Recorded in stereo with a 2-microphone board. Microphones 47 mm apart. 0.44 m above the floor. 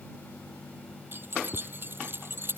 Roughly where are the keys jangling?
Right.